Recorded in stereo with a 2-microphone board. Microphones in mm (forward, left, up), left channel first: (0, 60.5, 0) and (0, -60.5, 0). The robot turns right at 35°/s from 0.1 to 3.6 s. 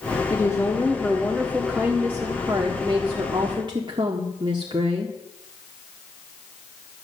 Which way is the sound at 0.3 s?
140° left.